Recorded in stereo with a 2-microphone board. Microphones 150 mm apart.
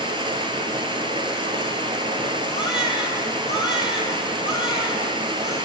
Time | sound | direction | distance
0.0 | running water | 35° right (ahead or behind) | 1.6 m
2.5 | a baby crying | 30° left (ahead or behind) | 2 m